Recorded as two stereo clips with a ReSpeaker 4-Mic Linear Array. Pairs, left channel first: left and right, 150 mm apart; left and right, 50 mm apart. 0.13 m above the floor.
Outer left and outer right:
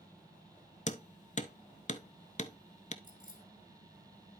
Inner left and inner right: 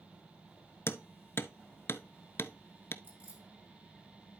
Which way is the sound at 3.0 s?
30° right (ahead or behind).